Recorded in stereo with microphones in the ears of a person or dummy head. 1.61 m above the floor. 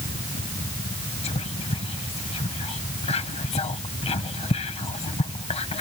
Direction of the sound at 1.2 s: 25° left (ahead or behind).